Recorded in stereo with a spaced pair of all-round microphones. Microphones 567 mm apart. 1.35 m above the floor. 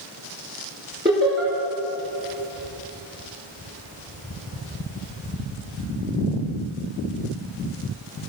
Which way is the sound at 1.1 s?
20° right (ahead or behind).